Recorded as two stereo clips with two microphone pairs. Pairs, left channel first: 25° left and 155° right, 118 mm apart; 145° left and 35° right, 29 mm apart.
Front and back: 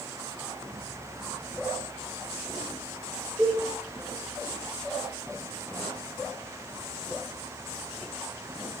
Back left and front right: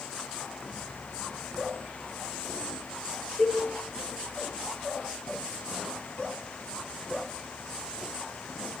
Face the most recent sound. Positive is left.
turn(degrees=130)